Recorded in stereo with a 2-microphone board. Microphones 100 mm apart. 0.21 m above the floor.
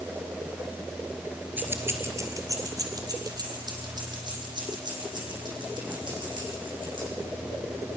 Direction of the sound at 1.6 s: 20° right (ahead or behind).